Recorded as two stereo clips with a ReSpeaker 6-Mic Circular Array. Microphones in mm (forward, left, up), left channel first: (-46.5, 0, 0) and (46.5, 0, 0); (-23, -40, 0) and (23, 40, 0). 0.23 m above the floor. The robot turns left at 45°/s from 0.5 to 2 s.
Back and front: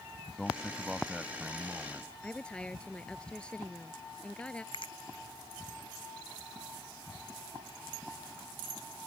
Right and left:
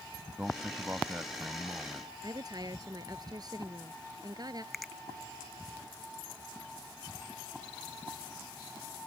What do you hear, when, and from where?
0.4 s a man speaking: 95° left; by 2.1 s 25° left
2.2 s a woman speaking: 100° left
4.7 s a finger snap: 150° left